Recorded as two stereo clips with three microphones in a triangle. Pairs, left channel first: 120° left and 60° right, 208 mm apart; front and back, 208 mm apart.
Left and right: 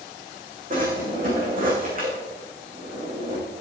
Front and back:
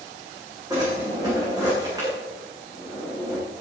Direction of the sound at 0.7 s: 110° right.